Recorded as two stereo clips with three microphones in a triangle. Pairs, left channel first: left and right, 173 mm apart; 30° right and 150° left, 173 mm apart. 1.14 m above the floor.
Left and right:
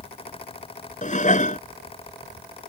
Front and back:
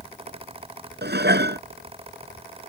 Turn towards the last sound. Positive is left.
turn(degrees=135)